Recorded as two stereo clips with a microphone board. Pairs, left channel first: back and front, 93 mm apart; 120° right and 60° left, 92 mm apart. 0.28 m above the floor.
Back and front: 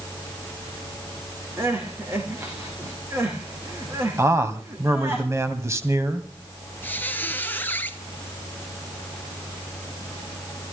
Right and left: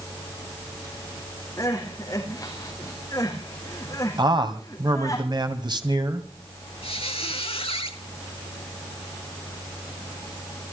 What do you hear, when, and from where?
1.6 s crying: 65° right, 4.5 m
4.2 s a man speaking: 55° left, 2 m
6.8 s a squeak: 110° right, 1.8 m